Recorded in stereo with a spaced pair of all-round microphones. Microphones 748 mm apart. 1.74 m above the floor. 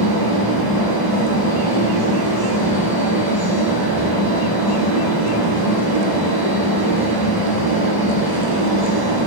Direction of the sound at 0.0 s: 30° right (ahead or behind).